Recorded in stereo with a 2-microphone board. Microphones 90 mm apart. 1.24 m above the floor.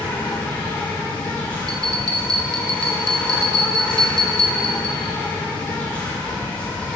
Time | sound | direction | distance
0.0 | an insect | 15° left (ahead or behind) | 1.6 m
1.7 | a bell | 45° right (ahead or behind) | 0.6 m